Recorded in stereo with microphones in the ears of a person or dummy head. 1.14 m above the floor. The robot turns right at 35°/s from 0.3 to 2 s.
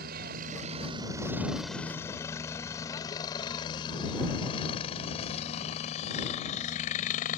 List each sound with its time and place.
0.0 s a helicopter: 55° right (ahead or behind); by 7.4 s 45° left (ahead or behind)